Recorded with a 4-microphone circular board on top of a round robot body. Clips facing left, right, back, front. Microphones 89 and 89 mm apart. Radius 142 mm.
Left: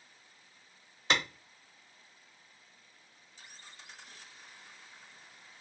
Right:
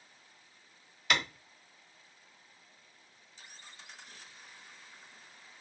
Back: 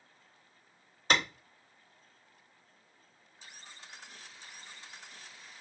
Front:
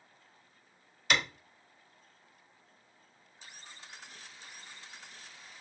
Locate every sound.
1.1 s a clap: 140° left, 1.2 m